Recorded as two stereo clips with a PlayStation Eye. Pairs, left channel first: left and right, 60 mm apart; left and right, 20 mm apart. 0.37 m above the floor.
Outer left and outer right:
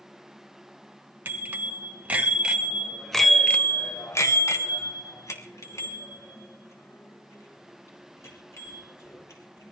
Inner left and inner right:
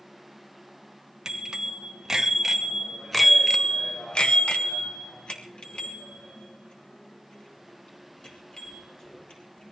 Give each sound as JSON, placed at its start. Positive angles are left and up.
{"t": 1.2, "sound": "a bicycle bell", "side_deg": -30, "distance_m": 2.5}